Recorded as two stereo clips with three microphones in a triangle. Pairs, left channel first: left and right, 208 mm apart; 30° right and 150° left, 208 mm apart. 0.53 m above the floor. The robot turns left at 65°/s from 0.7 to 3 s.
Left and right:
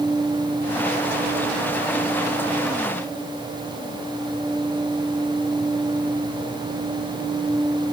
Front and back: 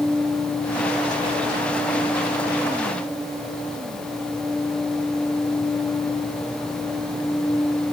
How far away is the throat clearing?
I don't hear throat clearing.